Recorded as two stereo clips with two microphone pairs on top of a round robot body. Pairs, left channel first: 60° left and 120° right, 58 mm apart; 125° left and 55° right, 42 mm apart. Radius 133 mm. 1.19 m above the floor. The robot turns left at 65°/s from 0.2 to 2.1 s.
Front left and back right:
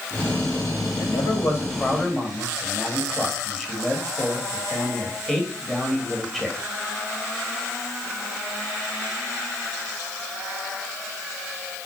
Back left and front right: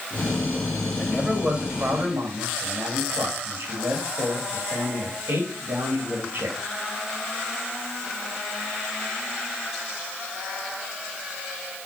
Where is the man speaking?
50° left, 1.9 m; by 6.6 s 25° right, 1.9 m.